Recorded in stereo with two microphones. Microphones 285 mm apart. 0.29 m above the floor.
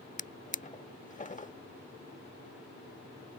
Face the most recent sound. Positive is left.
turn(degrees=25)  # may be behind; listen again after turning